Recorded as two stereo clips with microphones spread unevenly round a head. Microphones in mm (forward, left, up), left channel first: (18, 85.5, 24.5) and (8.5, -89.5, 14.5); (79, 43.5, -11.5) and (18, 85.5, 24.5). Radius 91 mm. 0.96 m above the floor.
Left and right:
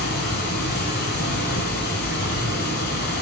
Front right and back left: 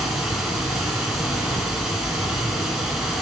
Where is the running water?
85° left, 1.3 m.